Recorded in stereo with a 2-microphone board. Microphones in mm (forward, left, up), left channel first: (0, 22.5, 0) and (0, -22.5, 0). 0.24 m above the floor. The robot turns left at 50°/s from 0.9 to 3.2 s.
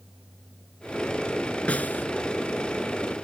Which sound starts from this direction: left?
A snare drum, at 1.7 s.